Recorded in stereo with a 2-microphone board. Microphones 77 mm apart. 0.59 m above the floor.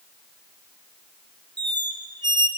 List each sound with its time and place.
1.6 s a squeak: 70° right (ahead or behind), 0.6 m